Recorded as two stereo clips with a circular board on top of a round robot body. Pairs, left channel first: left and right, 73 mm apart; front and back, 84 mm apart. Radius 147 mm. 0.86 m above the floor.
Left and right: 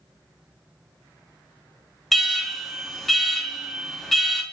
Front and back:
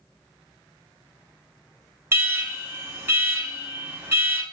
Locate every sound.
2.1 s an alarm: 175° left, 1.0 m